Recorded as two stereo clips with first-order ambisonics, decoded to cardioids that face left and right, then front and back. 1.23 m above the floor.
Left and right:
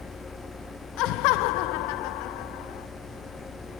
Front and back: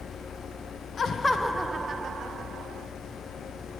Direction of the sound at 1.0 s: 65° left.